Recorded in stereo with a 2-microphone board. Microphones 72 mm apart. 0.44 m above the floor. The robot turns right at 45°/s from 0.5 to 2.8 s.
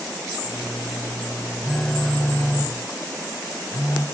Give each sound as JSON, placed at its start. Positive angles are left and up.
{"t": 1.6, "sound": "a phone buzzing", "azimuth_deg": -10, "distance_m": 1.7}